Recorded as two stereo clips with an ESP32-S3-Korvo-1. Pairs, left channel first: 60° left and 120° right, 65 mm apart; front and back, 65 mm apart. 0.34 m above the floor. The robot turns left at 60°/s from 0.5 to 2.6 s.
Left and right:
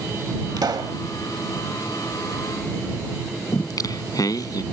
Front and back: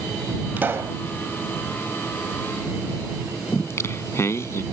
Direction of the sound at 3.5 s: 45° left.